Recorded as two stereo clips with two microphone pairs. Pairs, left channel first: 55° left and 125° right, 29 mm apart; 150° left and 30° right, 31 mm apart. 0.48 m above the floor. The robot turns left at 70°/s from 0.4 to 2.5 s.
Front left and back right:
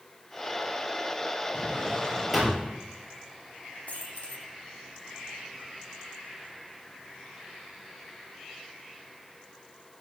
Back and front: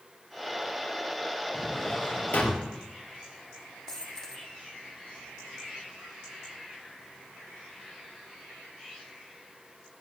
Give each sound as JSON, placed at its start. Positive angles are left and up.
{"t": 1.5, "sound": "a drawer", "azimuth_deg": -150, "distance_m": 7.0}
{"t": 3.9, "sound": "a dropped coin", "azimuth_deg": 80, "distance_m": 2.0}